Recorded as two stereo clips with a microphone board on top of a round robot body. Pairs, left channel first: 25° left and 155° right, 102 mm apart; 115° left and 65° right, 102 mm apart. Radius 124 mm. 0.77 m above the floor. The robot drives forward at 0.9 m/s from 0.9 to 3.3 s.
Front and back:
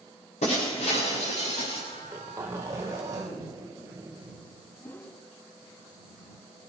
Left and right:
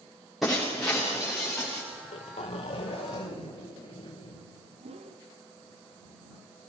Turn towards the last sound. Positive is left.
turn(degrees=-50)